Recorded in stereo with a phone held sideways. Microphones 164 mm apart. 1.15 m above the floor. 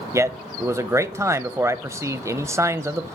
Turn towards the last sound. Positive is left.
turn(degrees=-15)  # may be behind; listen again after turning